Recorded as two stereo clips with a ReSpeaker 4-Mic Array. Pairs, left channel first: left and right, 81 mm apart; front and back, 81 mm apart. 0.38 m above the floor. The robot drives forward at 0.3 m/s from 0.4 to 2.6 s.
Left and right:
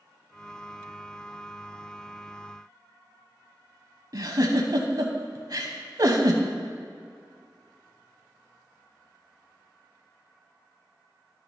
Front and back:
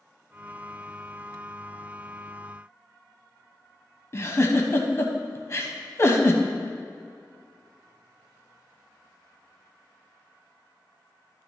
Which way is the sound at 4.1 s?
55° right.